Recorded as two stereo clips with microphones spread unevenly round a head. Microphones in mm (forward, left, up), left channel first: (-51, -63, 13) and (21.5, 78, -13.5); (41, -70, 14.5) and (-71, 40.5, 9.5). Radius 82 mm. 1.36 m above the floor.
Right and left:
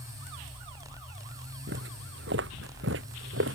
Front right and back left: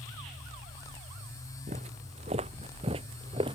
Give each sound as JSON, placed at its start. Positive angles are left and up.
{"t": 1.7, "sound": "footsteps", "azimuth_deg": 80}